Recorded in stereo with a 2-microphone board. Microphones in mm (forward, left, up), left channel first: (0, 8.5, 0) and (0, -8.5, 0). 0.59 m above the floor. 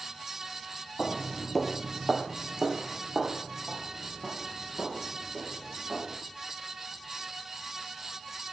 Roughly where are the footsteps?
Left.